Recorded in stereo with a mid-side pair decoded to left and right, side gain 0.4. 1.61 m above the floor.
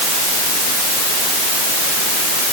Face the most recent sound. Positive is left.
No sound to turn to.